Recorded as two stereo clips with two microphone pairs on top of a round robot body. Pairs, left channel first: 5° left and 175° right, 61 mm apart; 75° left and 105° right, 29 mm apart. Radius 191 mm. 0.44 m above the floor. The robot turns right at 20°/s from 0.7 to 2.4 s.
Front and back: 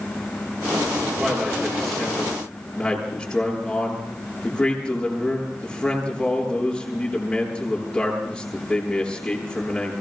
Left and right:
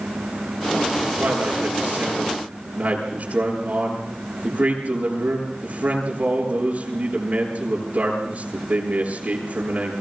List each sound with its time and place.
1.2 s a man speaking: 95° right, 9 m; by 9.9 s 75° right, 9 m